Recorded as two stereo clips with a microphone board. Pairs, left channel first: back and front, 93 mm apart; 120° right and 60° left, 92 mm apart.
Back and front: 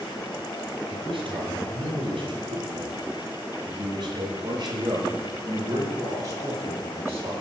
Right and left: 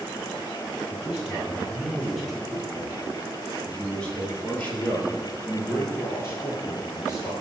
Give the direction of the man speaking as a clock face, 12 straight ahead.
1 o'clock.